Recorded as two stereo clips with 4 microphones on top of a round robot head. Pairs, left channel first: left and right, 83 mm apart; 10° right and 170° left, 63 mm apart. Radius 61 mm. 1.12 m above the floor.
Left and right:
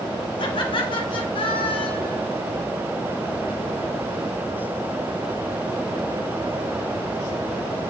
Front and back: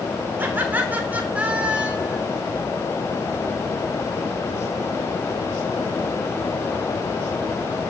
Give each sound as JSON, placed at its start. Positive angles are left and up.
{"t": 0.4, "sound": "laughter", "azimuth_deg": 110, "distance_m": 4.5}